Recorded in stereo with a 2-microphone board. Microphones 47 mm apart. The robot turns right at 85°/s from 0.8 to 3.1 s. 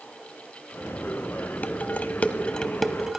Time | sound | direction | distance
1.6 | dishes clattering | 40° left (ahead or behind) | 0.9 m